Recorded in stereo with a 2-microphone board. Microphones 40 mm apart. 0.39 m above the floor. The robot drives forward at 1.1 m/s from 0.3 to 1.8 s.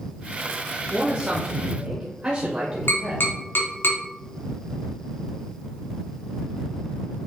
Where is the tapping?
65° left (ahead or behind), 3 m.